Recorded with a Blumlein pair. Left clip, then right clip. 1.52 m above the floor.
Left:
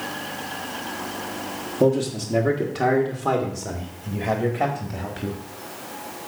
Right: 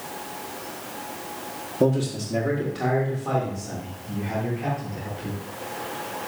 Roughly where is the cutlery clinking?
I don't hear cutlery clinking.